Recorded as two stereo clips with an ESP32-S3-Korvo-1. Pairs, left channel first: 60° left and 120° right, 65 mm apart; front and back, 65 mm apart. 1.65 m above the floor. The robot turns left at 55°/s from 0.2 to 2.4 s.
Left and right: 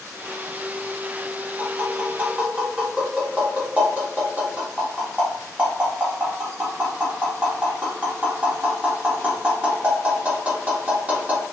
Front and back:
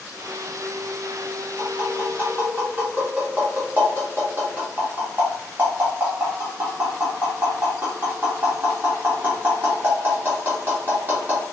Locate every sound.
1.6 s tapping: 120° right, 1.1 m; by 11.4 s 165° right, 1.1 m